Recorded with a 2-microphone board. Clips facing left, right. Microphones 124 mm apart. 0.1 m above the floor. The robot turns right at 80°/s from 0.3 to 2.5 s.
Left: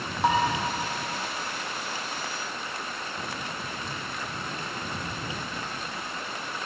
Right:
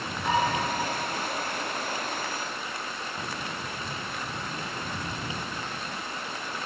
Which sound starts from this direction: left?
Dishes clattering, at 0.2 s.